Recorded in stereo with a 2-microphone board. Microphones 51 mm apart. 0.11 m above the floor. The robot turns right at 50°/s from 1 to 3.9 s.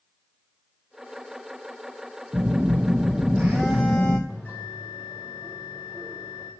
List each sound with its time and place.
2.3 s a phone buzzing: 30° right, 1.2 m; by 4.2 s 50° left, 1.2 m
4.3 s a bell: 30° left (ahead or behind), 3.5 m